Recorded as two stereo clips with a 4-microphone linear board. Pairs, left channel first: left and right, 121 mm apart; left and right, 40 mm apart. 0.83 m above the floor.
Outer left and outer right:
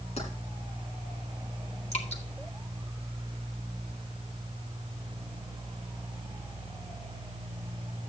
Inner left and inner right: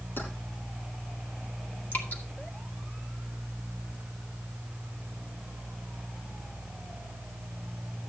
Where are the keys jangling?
55° left (ahead or behind), 6 m.